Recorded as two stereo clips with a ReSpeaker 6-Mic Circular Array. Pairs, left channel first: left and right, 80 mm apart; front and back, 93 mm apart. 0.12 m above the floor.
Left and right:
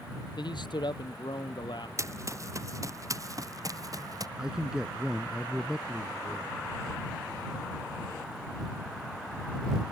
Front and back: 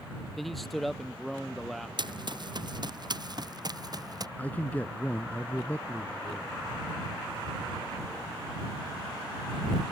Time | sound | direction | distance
0.4 | a man speaking | 90° left | ?
2.0 | running footsteps | 145° right | ?
4.4 | a man speaking | 25° right | ?